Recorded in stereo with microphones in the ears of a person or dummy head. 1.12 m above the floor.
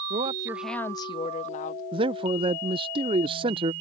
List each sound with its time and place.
0.1 s a woman speaking: 40° right (ahead or behind); by 1.8 s 50° left (ahead or behind)
1.9 s a man speaking: 25° right (ahead or behind)